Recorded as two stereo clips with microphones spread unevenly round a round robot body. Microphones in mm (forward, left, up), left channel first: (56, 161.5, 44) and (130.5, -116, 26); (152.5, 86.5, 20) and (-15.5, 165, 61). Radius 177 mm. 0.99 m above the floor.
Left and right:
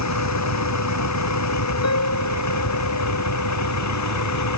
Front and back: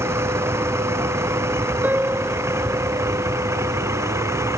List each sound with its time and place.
0.0 s a vehicle: 80° left
1.8 s a piano: 75° left